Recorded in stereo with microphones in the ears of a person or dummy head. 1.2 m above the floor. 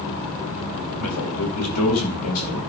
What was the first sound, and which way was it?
A man speaking, 85° left.